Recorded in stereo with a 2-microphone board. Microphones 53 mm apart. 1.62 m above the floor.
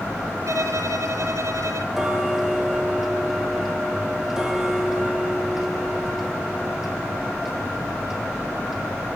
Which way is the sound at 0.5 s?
65° right (ahead or behind).